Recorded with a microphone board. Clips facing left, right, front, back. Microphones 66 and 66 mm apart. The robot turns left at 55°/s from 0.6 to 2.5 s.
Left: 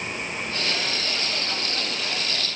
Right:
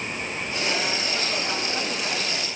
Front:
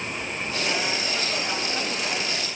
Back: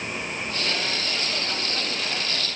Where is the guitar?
No guitar in this recording.